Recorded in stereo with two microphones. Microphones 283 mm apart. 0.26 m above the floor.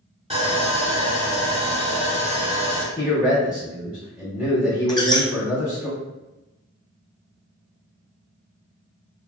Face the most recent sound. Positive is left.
turn(degrees=15)  # may be behind; listen again after turning